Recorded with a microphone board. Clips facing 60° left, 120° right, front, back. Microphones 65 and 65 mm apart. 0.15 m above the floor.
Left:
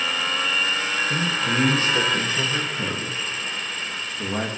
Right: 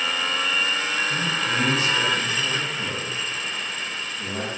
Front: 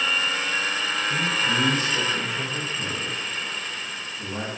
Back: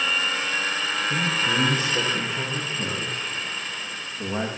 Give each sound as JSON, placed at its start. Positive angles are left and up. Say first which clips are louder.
{"t": 1.1, "sound": "a man speaking", "louder": "left 1 dB, even", "azimuth_deg": 110, "distance_m": 9.5}